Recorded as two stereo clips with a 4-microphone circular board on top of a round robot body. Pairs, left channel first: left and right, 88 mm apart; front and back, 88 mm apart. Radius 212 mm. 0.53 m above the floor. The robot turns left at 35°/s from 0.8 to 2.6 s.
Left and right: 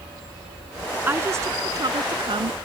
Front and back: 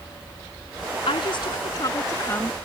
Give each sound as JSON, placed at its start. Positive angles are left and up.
{"t": 1.1, "sound": "a woman speaking", "azimuth_deg": -20}